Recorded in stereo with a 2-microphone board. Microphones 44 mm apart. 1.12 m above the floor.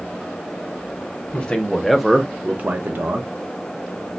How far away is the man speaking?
About 1.0 m.